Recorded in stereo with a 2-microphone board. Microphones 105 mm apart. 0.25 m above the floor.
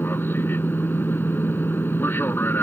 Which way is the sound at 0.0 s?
20° left (ahead or behind).